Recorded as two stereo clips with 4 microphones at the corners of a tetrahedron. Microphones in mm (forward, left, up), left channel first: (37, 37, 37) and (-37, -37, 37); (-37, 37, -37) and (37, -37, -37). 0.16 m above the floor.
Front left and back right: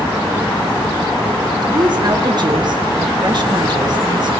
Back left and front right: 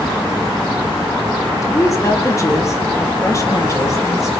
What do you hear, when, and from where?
1.6 s a woman speaking: 170° right, 3 m